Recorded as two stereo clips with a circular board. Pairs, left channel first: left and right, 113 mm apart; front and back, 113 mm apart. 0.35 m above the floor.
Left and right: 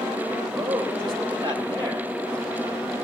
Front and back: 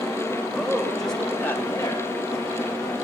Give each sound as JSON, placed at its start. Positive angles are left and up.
{"t": 0.5, "sound": "a man speaking", "azimuth_deg": -100, "distance_m": 2.0}